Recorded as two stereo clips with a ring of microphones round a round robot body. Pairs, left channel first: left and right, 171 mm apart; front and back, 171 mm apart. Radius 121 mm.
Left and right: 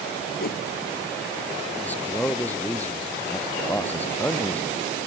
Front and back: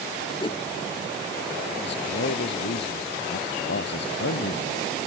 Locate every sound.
0.4 s a whoosh: 60° left
1.8 s a man speaking: 10° left